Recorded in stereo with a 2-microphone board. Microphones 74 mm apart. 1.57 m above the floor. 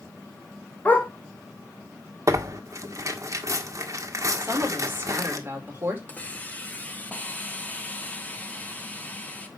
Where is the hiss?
20° left (ahead or behind), 2 m.